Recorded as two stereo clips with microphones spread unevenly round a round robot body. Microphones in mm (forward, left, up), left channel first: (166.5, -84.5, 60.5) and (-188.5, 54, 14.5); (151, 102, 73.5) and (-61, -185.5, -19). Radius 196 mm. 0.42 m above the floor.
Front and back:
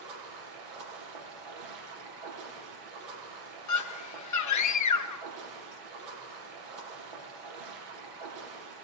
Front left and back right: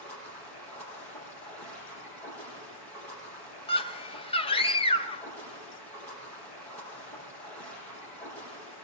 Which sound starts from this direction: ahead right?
A scream, at 3.7 s.